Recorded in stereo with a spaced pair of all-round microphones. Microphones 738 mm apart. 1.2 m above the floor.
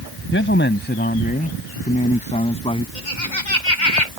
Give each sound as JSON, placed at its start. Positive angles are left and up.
{"t": 0.3, "sound": "a man speaking", "side_deg": 15}
{"t": 3.0, "sound": "laughter", "side_deg": 85}